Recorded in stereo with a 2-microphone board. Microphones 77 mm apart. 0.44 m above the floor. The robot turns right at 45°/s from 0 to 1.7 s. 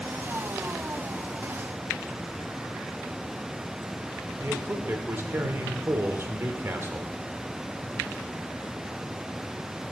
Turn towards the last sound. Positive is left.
turn(degrees=-30)  # may be behind; listen again after turning